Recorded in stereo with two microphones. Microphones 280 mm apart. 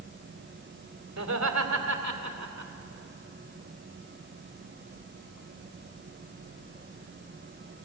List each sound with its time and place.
1.2 s laughter: 75° right (ahead or behind), 3 m; by 2.7 s 85° right, 2 m